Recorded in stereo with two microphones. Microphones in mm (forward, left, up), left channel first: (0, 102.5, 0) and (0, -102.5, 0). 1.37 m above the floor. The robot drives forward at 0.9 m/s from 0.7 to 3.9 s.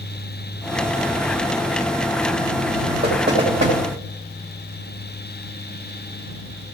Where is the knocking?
55° right (ahead or behind), 2.5 m; by 3.8 s 65° right (ahead or behind), 2.5 m.